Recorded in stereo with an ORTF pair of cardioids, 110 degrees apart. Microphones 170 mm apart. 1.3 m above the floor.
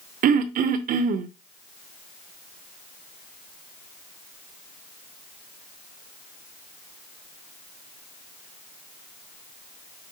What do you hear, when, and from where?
0.2 s throat clearing: 55° right, 0.7 m